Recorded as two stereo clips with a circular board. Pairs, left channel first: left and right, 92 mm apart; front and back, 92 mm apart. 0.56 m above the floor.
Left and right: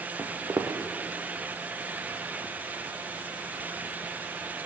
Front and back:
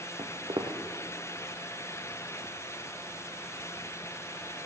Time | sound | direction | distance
0.2 | footsteps | 150° right | 1.5 m